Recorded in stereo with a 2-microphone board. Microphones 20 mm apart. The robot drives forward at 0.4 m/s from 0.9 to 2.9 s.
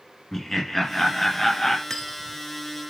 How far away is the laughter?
About 1.1 m.